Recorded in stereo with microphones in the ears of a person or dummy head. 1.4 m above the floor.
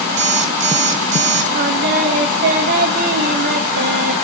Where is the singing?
50° right (ahead or behind), 1.0 m.